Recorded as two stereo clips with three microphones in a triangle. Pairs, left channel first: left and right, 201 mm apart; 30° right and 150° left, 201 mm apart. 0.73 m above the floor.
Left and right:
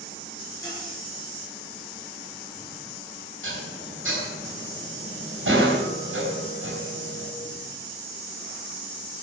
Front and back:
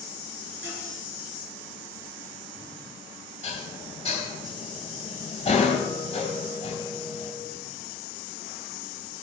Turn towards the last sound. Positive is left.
turn(degrees=-90)